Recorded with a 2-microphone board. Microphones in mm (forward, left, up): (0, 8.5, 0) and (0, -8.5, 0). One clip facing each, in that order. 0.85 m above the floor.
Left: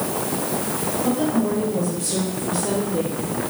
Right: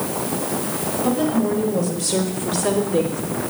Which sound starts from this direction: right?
A woman speaking, at 1.0 s.